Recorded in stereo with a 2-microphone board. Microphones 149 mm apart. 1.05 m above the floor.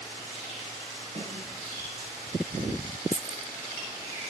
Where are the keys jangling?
55° right (ahead or behind), 1.1 m.